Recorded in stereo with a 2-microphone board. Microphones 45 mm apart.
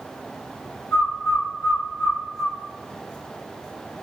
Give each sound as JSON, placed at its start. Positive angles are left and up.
{"t": 0.9, "sound": "a bird", "side_deg": 70, "distance_m": 1.6}